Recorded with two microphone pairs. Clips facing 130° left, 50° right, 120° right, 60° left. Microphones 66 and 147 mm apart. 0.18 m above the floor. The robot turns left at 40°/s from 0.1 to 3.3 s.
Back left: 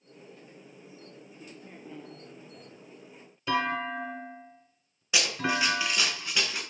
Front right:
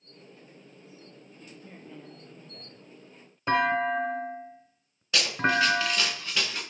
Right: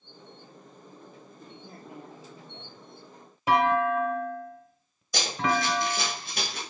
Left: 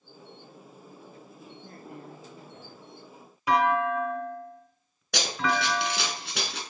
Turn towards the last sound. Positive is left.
turn(degrees=45)